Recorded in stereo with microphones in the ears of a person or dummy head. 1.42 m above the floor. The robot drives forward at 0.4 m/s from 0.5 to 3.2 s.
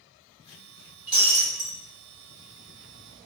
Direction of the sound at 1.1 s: 5° right (ahead or behind).